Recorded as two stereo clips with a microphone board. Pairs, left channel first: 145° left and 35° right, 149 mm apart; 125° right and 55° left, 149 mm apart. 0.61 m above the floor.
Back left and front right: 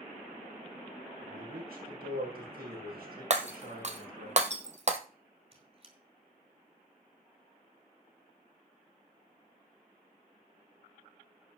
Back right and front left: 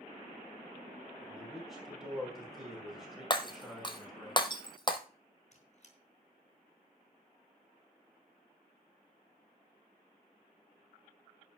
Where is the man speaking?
30° right, 5.5 m.